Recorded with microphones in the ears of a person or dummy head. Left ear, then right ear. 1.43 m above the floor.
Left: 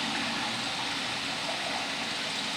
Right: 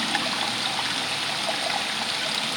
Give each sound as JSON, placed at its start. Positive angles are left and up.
{"t": 0.0, "sound": "running water", "side_deg": -75, "distance_m": 0.7}